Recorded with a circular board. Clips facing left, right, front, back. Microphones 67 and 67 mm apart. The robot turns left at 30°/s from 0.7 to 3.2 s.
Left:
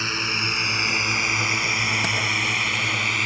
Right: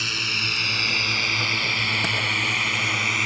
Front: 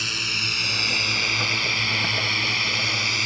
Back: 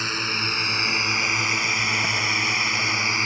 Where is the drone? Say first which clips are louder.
Left 2 dB, back 3 dB; 140° left; by 3.3 s 175° right.